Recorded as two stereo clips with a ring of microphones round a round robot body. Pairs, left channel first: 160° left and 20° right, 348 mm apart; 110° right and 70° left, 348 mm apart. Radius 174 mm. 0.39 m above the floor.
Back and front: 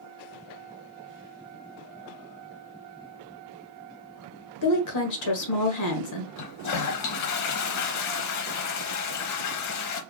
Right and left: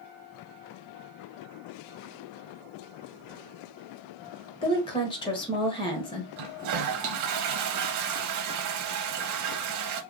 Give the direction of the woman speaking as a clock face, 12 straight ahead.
6 o'clock.